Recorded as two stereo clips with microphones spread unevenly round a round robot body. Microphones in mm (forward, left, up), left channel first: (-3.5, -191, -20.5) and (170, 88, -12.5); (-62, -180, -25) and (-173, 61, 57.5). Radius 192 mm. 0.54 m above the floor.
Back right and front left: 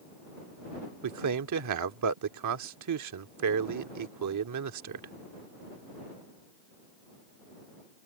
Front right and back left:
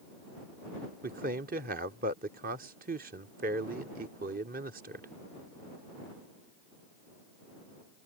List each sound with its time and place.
1.0 s a man speaking: 45° left